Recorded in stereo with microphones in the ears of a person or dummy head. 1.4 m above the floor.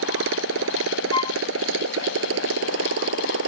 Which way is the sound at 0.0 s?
70° right (ahead or behind).